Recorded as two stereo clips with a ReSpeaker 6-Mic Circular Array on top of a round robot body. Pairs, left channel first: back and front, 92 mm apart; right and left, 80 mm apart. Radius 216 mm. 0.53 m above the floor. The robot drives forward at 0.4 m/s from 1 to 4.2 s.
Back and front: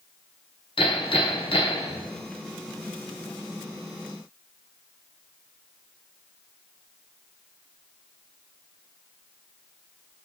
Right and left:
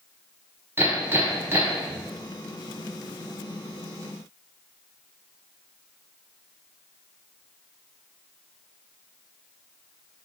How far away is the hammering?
About 4.5 m.